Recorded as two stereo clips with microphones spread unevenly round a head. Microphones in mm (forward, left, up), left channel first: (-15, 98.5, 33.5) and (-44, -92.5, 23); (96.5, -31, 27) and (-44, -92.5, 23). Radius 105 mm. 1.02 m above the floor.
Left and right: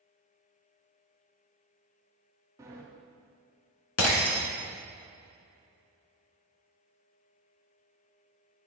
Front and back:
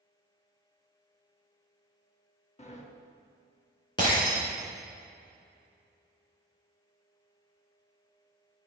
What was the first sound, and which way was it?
A sliding door, 20° right.